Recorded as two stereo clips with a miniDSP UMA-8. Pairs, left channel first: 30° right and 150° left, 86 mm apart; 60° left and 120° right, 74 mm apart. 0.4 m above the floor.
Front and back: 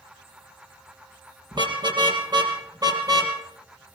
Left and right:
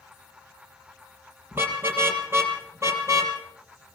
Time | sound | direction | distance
1.5 | a car horn | straight behind | 5 m